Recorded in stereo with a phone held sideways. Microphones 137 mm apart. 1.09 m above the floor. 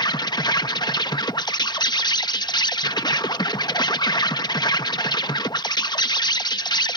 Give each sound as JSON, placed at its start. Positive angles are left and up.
{"t": 0.0, "sound": "an insect", "side_deg": 30}